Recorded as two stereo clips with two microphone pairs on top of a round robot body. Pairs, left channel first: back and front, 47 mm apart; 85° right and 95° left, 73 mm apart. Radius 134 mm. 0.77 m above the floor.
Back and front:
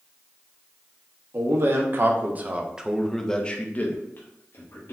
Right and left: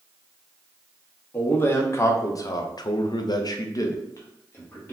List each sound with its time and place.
1.3 s a man speaking: 25° right, 1.2 m; by 4.9 s 150° right, 1.3 m